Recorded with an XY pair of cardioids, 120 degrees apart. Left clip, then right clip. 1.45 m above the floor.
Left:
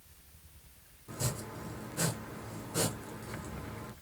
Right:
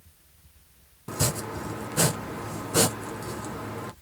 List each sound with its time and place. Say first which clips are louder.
1.1 s chopping: right 10 dB; 70° right, 0.7 m